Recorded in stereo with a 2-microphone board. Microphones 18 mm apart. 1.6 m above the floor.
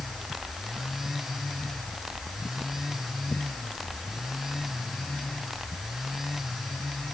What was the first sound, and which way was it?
Only background noise.